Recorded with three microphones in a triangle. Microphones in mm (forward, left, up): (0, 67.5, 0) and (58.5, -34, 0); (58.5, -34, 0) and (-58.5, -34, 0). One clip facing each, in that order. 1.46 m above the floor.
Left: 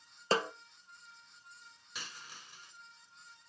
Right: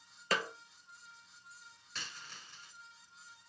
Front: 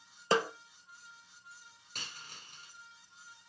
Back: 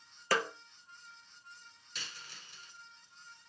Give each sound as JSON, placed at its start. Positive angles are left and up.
{"t": 0.3, "sound": "a snare drum", "azimuth_deg": 60, "distance_m": 1.0}
{"t": 1.9, "sound": "a dropped coin", "azimuth_deg": 40, "distance_m": 4.5}